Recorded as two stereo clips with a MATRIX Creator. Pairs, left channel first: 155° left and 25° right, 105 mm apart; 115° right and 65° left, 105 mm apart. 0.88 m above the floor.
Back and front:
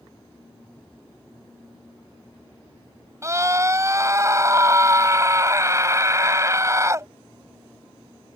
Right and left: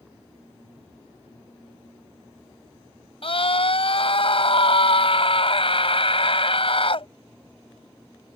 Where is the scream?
85° right.